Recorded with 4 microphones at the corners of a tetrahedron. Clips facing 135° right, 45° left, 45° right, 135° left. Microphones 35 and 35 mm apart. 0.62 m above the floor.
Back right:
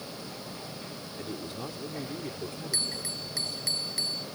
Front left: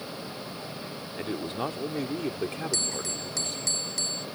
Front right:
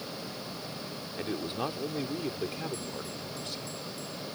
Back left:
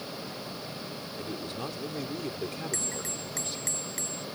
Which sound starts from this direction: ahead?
A man speaking, at 1.2 s.